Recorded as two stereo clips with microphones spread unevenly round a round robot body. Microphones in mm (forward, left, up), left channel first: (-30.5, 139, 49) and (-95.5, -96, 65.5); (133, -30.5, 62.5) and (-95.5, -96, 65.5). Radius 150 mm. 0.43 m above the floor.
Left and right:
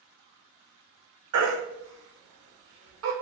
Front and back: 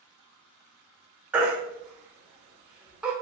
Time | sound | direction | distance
1.3 | a baby crying | 80° right | 1.1 m